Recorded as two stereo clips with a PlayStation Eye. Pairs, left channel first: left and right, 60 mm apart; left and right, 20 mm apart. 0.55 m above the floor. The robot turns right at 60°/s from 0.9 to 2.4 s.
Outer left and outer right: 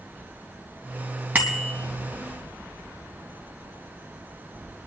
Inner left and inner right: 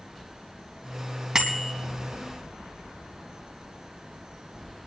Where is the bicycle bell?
30° right (ahead or behind), 3 m; by 1.7 s 5° right (ahead or behind), 3 m.